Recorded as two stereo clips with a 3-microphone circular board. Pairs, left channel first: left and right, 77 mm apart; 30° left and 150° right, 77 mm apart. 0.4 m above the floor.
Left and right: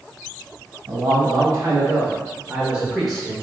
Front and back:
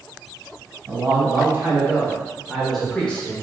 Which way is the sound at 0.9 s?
100° right.